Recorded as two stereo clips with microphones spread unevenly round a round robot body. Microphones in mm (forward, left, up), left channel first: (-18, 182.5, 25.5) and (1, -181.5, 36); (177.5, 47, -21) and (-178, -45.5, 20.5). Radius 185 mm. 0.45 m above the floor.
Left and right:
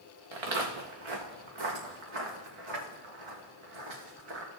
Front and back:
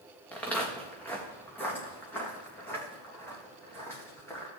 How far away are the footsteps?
About 2.5 m.